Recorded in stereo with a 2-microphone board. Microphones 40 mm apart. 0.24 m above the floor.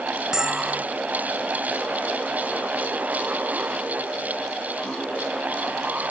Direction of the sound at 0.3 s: 15° right (ahead or behind).